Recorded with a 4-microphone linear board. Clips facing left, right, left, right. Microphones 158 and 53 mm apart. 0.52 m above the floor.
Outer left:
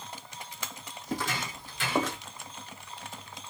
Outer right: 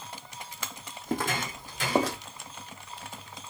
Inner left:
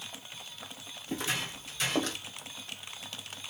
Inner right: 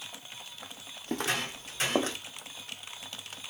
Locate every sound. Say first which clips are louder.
1.1 s footsteps: outer right 3 dB, inner right 3 dB; 65° right (ahead or behind), 1.4 m; by 2.2 s 35° right (ahead or behind), 1.3 m